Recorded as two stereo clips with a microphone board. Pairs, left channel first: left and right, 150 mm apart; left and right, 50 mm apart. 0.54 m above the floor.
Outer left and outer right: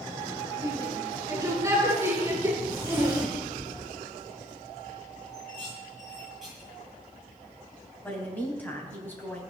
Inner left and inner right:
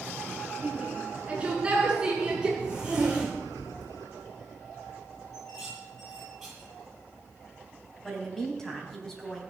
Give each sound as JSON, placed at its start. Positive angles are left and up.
{"t": 0.6, "sound": "a shout", "side_deg": -25, "distance_m": 6.5}
{"t": 2.6, "sound": "a zipper", "side_deg": -15, "distance_m": 8.0}
{"t": 5.3, "sound": "dishes clattering", "side_deg": 0, "distance_m": 9.5}
{"t": 8.0, "sound": "a woman speaking", "side_deg": 10, "distance_m": 4.0}